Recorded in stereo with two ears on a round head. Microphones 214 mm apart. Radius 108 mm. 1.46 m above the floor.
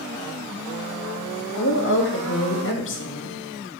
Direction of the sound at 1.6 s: 50° left (ahead or behind).